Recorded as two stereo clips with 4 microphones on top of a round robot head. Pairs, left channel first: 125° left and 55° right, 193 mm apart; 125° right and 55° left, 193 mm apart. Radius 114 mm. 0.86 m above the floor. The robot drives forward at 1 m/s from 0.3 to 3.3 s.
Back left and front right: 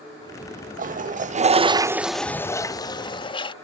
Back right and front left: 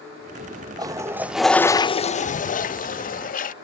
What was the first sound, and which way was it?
A toilet flushing, 15° right.